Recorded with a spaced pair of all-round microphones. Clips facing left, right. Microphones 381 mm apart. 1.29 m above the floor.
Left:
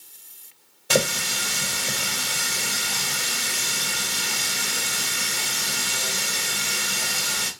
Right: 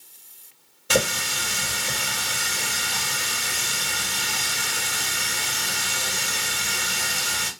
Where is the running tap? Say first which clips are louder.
Left 1 dB; 5° right (ahead or behind), 1.6 m.